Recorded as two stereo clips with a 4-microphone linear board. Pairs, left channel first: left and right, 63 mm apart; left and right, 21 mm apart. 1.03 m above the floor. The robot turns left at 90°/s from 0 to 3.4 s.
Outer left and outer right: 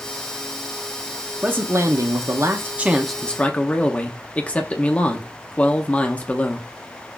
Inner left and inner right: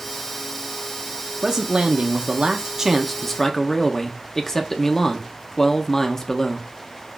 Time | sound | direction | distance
1.4 | a man speaking | 30° right | 0.9 m